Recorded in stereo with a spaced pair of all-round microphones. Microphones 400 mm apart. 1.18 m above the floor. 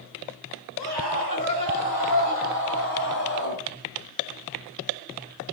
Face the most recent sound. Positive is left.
turn(degrees=45)  # may be behind; listen again after turning